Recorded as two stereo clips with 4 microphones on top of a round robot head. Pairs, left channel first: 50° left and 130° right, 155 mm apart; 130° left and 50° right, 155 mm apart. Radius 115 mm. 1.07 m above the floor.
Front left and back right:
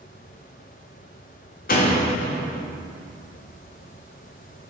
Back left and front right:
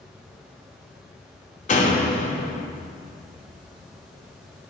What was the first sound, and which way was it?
A door slam, 85° left.